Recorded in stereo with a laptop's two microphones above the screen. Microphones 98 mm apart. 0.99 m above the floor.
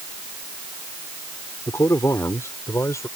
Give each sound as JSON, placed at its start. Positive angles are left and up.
{"t": 1.7, "sound": "a man speaking", "side_deg": 30}